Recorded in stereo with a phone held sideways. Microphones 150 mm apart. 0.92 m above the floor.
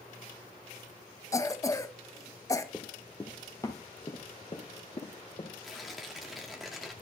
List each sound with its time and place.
1.3 s a cough: 20° left (ahead or behind), 1.0 m
2.7 s running footsteps: centre (ahead or behind), 1.3 m; by 5.5 s 45° left (ahead or behind), 3 m
5.6 s tearing paper: centre (ahead or behind), 1.4 m